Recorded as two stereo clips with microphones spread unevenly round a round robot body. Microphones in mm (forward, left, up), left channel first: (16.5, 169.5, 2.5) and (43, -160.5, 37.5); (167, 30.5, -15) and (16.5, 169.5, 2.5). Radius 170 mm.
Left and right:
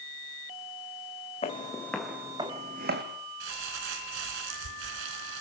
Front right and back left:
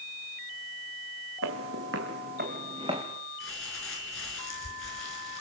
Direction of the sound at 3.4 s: 100° right.